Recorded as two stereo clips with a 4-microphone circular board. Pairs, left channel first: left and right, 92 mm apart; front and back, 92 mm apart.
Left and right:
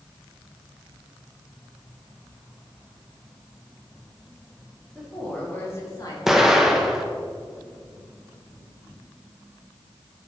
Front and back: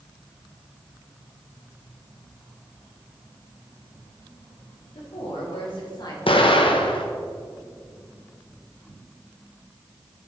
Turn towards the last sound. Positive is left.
turn(degrees=-5)